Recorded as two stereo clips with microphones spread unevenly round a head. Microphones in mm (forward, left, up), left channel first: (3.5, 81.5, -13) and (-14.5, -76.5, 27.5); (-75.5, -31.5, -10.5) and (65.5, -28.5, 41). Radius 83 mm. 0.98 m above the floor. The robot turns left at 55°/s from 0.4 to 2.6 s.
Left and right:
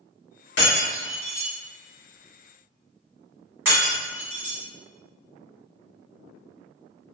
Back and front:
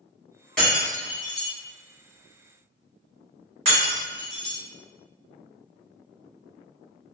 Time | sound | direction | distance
0.6 | breaking glass | 85° left | 1.7 m